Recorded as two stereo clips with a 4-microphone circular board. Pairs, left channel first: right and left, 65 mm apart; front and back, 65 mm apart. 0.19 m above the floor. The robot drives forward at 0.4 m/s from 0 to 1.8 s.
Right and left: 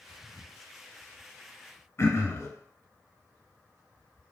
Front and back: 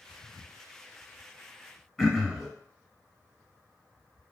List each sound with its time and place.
2.0 s throat clearing: 95° right, 0.5 m